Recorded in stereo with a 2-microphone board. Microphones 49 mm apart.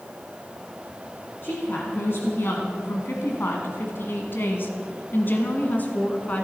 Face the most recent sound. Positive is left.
turn(degrees=30)  # may be behind; listen again after turning